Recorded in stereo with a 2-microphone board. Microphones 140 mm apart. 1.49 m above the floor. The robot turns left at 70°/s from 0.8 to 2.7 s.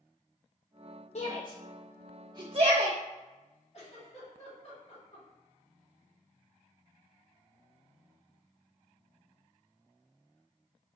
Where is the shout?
55° left (ahead or behind), 0.5 m; by 3.0 s 55° right (ahead or behind), 0.5 m.